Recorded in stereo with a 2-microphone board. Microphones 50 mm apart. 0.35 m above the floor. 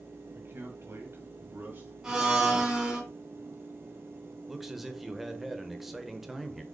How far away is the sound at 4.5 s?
About 0.9 m.